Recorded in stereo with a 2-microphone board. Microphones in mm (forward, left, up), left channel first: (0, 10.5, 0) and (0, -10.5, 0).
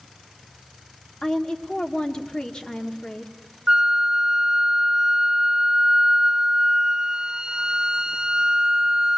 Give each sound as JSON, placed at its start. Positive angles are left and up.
{"t": 1.2, "sound": "a woman speaking", "side_deg": 40, "distance_m": 1.3}
{"t": 3.7, "sound": "a flute", "side_deg": -30, "distance_m": 0.8}